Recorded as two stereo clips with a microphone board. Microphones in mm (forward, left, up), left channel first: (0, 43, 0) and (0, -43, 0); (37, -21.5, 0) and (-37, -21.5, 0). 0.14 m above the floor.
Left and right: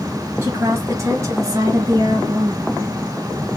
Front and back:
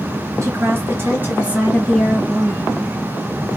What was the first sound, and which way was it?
A woman speaking, 145° right.